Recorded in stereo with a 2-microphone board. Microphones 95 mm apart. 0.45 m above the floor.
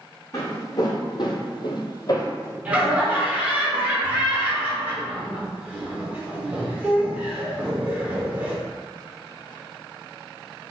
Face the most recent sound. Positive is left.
turn(degrees=-15)  # may be behind; listen again after turning